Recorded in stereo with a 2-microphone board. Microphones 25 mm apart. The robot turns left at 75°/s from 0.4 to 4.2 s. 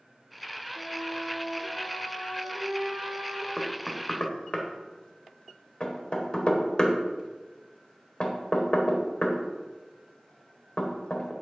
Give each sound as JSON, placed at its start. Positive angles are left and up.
{"t": 0.8, "sound": "a flute", "azimuth_deg": 40, "distance_m": 2.5}
{"t": 3.6, "sound": "knocking", "side_deg": 5, "distance_m": 1.3}